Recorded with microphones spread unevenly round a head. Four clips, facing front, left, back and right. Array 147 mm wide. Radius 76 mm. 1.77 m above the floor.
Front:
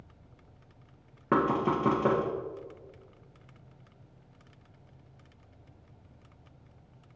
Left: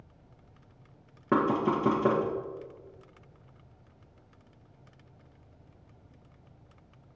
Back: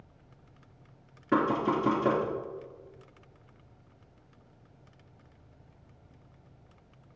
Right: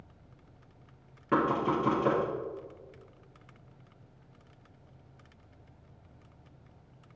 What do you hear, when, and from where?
1.3 s knocking: 40° left, 1.5 m